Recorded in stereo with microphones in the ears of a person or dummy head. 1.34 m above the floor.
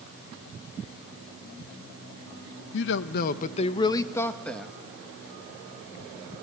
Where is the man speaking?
70° left (ahead or behind), 0.9 m; by 4.7 s centre (ahead or behind), 1.4 m.